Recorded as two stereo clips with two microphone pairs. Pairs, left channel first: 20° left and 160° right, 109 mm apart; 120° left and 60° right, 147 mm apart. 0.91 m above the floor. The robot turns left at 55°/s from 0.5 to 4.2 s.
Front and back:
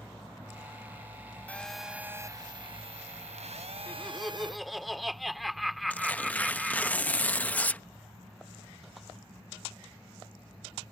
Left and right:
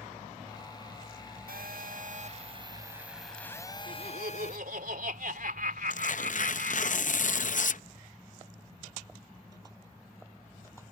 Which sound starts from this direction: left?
Tearing paper, at 5.9 s.